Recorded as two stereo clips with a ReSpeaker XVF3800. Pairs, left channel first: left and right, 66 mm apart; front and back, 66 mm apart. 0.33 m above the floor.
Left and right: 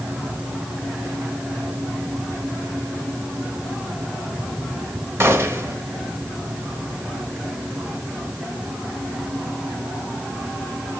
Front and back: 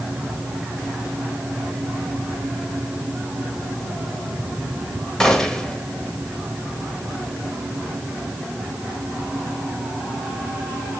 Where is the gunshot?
75° right, 1.4 m.